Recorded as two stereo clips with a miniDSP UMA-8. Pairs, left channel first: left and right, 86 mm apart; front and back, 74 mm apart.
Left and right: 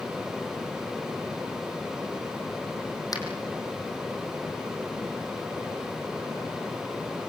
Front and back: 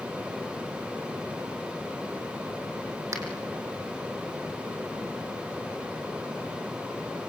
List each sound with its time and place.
3.1 s a finger snap: 135° left, 4.5 m